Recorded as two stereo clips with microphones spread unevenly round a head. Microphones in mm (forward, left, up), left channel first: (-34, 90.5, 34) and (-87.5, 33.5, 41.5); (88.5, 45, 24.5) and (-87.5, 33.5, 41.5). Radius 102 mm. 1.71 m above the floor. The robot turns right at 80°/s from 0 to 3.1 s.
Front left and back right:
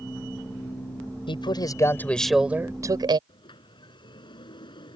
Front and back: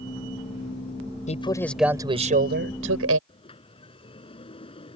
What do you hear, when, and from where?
1.3 s a man speaking: 55° left; by 3.2 s 160° right
3.3 s a sliding door: 65° left